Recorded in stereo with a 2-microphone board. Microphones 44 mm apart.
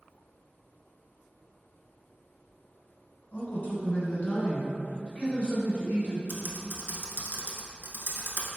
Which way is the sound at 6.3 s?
60° right (ahead or behind).